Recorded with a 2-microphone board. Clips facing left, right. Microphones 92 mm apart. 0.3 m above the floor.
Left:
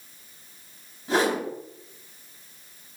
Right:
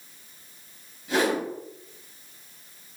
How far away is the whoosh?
About 1.5 m.